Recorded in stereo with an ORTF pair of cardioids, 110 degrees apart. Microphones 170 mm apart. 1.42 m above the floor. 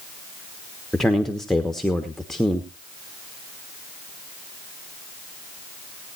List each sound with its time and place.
0.9 s a man speaking: straight ahead, 1.3 m